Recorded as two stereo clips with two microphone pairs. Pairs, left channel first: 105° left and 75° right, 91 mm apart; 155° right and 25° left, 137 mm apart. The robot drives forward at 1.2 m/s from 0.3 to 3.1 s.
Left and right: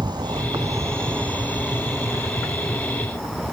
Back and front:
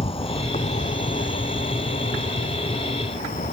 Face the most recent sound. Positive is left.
turn(degrees=-165)